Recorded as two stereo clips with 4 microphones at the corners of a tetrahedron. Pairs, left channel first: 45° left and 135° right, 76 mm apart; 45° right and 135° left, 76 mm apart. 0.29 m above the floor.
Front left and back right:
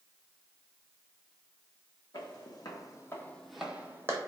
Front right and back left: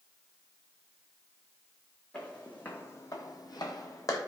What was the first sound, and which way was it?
Footsteps, 30° left.